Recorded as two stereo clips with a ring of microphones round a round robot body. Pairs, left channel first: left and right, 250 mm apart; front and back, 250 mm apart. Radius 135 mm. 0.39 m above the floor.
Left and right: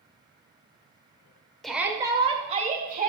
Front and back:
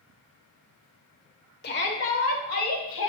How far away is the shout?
About 1.1 m.